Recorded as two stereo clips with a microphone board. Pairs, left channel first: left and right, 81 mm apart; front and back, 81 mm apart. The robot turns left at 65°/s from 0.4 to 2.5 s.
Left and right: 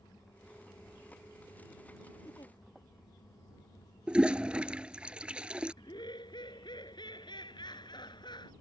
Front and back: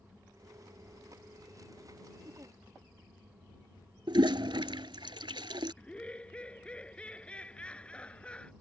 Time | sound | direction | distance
2.2 | a giggle | 140° left | ?
4.1 | a toilet flushing | 165° right | ?
5.8 | laughter | 75° left | ?